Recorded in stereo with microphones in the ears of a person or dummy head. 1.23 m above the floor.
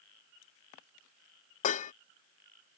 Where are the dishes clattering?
40° left (ahead or behind).